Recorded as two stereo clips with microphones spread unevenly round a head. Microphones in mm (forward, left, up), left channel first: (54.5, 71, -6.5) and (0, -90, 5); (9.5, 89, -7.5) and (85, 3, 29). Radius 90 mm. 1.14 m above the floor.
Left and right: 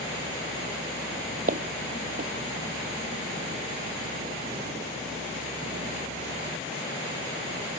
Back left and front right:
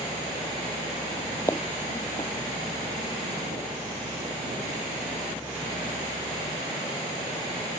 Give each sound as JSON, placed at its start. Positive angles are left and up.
{"t": 1.5, "sound": "footsteps", "azimuth_deg": -150}